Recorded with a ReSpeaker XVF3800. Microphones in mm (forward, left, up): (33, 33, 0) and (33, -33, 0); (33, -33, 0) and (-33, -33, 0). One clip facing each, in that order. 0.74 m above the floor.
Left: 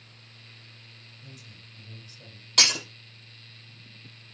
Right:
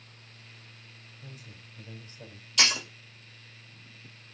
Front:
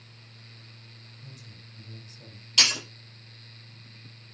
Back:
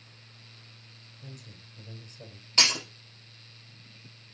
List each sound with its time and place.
1.2 s a man speaking: 145° right, 3 m
2.6 s breaking glass: 125° left, 4.5 m